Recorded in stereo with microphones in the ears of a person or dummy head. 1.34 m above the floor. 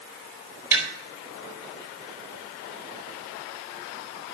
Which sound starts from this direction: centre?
Tapping, at 0.7 s.